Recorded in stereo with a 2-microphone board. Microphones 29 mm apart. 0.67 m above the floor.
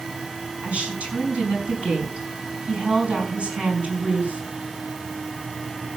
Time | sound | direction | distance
0.6 | a woman speaking | 40° right (ahead or behind) | 5.5 m